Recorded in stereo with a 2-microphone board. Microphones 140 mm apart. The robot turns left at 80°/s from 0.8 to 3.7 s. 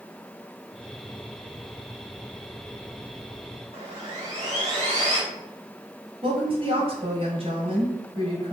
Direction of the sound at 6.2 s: 40° right (ahead or behind).